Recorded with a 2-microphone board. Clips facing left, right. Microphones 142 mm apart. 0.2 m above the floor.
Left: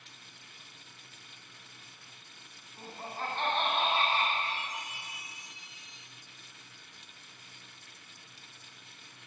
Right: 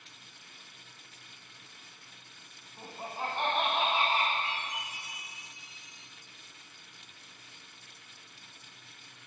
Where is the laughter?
15° right (ahead or behind), 1.1 m.